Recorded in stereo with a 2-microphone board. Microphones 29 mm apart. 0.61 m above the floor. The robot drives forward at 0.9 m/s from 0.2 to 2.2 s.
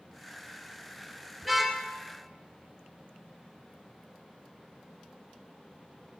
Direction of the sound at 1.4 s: 5° left (ahead or behind).